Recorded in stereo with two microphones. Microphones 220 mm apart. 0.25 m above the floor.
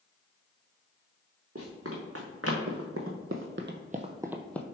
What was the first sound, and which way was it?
Running footsteps, 80° right.